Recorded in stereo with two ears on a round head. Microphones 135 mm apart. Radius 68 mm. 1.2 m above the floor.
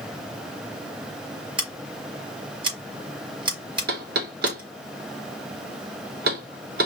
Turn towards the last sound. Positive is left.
turn(degrees=-70)  # may be behind; listen again after turning